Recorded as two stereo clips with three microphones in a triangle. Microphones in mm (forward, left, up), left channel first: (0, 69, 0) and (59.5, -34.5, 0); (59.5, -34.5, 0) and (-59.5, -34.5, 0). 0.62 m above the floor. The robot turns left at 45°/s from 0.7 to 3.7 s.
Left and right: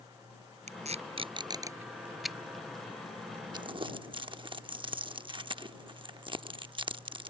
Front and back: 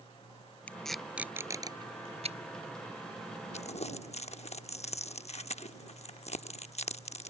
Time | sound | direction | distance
0.7 | tape being pulled | 80° right | ?
3.5 | crumpling | 10° right | ?